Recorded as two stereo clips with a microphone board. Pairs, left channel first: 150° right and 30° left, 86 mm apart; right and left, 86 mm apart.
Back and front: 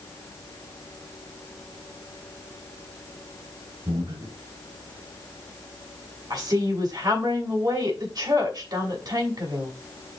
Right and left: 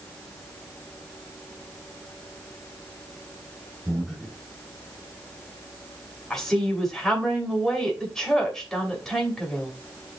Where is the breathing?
5° left, 4 m.